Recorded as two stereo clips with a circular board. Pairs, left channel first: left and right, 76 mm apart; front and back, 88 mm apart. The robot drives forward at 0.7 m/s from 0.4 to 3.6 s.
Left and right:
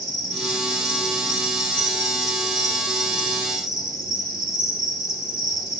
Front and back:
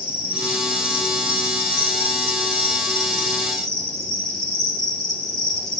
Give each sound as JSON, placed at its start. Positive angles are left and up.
{"t": 0.0, "sound": "an insect", "azimuth_deg": 100, "distance_m": 4.5}